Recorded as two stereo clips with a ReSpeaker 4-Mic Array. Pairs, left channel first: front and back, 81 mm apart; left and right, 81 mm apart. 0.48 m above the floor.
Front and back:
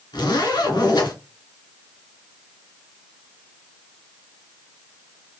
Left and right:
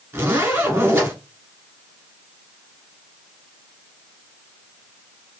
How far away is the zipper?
About 1.5 m.